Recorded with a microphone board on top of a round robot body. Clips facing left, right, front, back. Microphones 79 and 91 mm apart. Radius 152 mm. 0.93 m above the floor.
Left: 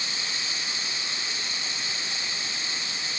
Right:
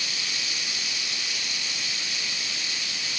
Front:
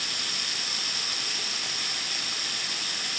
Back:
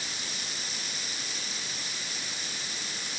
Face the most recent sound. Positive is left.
turn(degrees=30)